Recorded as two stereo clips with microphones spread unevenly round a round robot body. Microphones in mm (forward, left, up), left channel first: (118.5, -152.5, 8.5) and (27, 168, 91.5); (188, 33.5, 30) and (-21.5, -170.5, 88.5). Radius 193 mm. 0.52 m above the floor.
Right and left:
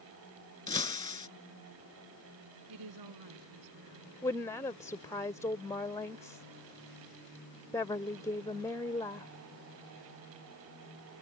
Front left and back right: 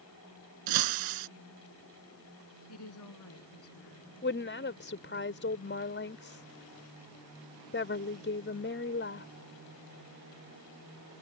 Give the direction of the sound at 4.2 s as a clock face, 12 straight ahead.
12 o'clock.